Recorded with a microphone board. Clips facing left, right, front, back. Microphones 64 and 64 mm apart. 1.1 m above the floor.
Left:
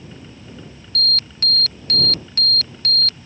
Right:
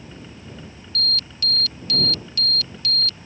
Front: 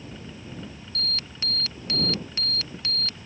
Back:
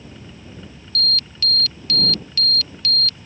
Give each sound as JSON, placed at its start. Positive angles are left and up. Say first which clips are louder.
{"t": 0.9, "sound": "an alarm", "louder": "left 3 dB, back 8 dB", "azimuth_deg": 60}